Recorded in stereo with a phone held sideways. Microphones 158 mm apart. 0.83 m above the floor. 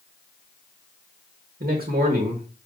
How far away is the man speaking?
About 1.2 m.